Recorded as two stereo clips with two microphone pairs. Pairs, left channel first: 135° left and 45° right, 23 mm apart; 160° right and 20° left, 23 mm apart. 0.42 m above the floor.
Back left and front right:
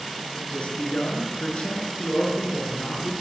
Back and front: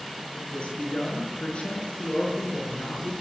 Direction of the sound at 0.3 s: 170° left.